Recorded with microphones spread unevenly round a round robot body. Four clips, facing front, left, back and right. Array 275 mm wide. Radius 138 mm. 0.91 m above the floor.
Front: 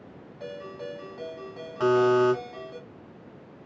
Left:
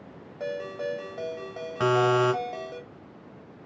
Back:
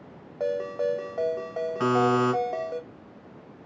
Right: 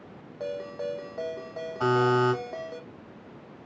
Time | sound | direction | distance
0.4 | a ringtone | straight behind | 1.4 m
1.8 | a buzzer | 95° left | 3 m